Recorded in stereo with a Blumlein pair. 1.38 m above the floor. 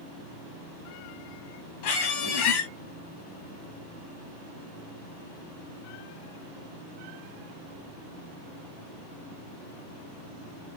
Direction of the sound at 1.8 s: 50° left.